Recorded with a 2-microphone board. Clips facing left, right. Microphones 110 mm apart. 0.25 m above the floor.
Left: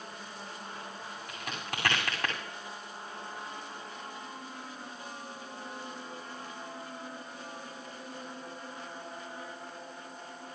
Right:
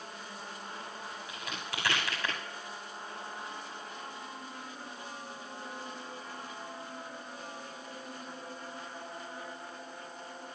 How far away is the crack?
About 8 m.